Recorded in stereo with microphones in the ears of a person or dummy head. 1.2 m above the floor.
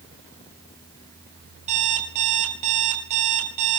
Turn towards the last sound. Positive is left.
turn(degrees=-40)  # may be behind; listen again after turning